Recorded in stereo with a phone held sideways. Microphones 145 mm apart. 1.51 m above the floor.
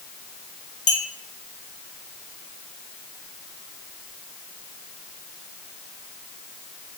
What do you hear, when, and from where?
0.9 s a clink: 55° left (ahead or behind), 1.4 m